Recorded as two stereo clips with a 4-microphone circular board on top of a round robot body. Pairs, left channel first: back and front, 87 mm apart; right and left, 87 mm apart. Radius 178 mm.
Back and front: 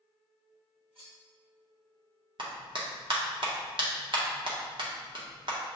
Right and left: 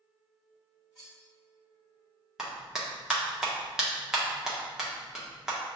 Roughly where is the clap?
Ahead.